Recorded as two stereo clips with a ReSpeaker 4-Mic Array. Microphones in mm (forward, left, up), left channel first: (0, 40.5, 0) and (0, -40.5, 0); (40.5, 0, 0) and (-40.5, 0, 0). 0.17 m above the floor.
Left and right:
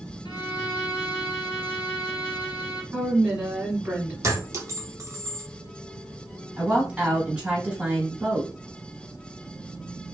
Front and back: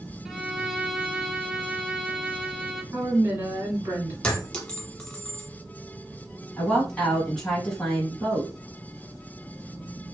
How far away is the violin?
About 0.7 m.